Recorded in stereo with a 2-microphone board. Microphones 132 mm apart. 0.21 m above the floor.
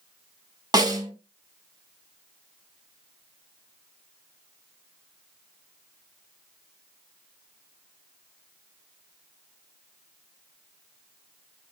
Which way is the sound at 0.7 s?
30° right (ahead or behind).